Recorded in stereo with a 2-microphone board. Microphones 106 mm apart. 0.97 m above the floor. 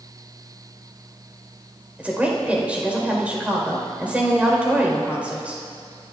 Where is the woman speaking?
15° right (ahead or behind), 4.5 m.